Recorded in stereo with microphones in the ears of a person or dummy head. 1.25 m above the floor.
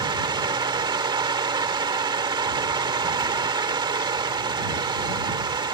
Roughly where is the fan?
Right.